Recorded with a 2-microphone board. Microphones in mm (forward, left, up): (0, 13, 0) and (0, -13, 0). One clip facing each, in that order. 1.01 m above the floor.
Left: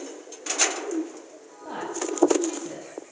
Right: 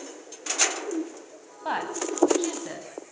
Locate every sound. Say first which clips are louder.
1.6 s a woman speaking: right 2 dB; 65° right (ahead or behind), 8.5 m; by 2.9 s 70° right (ahead or behind), 9 m